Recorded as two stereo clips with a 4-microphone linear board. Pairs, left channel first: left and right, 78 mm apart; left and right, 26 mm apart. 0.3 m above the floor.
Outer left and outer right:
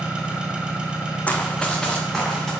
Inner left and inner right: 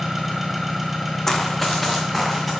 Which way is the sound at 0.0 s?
10° right (ahead or behind).